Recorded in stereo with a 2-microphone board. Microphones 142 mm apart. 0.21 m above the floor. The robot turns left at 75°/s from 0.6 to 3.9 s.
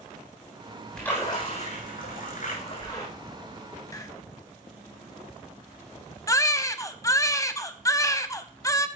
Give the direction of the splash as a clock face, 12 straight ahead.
6 o'clock.